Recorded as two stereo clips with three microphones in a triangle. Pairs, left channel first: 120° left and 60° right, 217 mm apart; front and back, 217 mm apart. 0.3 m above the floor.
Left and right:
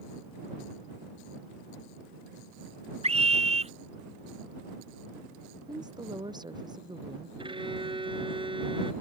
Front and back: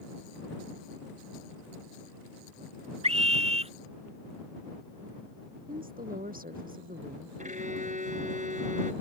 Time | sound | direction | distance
3.0 | a scream | 120° right | ?
5.7 | a woman speaking | 130° right | ?
7.4 | a violin | 125° right | ?